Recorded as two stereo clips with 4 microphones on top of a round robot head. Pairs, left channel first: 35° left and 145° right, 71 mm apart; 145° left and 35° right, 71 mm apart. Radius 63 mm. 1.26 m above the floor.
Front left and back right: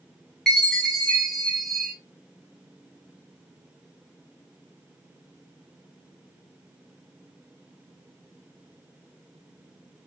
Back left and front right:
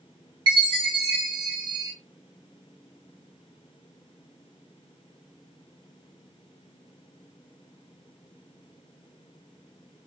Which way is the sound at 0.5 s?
55° right.